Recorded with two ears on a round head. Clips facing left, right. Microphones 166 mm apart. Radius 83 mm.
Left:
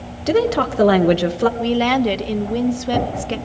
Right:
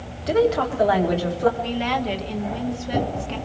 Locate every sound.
0.3 s a woman speaking: 55° left (ahead or behind), 1.7 m; by 1.5 s 80° left, 1.9 m
1.6 s a woman speaking: 60° left (ahead or behind), 1.6 m